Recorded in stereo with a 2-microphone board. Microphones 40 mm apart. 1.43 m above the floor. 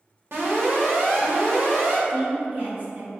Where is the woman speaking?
40° right (ahead or behind), 1.3 m.